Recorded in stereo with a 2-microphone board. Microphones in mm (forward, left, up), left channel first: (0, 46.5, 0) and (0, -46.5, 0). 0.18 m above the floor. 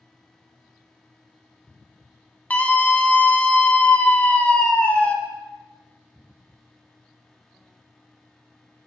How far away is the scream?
About 1.1 m.